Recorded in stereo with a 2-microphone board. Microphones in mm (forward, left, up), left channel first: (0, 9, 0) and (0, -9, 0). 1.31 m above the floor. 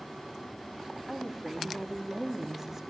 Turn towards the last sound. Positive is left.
turn(degrees=-20)  # may be behind; listen again after turning